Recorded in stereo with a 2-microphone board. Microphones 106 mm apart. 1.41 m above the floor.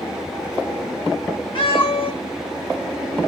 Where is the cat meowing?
55° left (ahead or behind), 1.2 m.